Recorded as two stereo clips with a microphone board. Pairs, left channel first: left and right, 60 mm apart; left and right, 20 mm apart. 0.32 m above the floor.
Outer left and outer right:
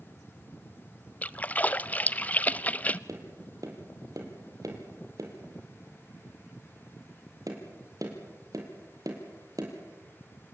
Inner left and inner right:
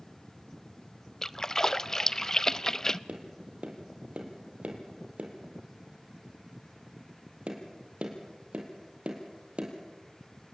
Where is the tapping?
75° right (ahead or behind), 4 m.